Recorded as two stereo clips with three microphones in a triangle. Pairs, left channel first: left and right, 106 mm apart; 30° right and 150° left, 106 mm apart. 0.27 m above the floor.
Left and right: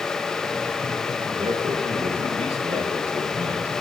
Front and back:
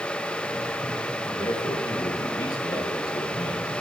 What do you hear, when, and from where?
1.2 s a man speaking: 75° right, 4.5 m; by 3.7 s 85° right, 5 m